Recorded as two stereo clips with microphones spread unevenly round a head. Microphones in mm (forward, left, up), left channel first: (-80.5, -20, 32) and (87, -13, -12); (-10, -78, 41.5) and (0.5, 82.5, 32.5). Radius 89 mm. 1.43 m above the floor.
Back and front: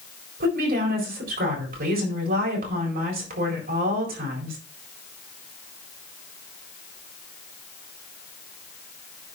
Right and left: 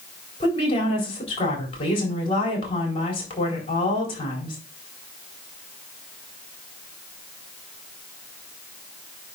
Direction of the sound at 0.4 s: 35° right.